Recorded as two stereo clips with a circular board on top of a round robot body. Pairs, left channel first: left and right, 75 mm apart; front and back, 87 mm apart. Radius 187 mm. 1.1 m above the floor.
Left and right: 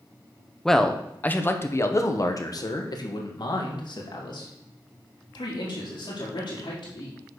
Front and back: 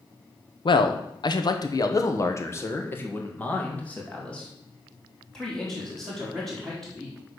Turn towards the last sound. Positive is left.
turn(degrees=90)